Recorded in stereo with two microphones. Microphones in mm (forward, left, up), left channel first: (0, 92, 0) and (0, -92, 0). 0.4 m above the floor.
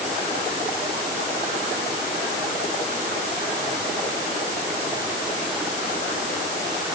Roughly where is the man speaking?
I don't hear a man speaking.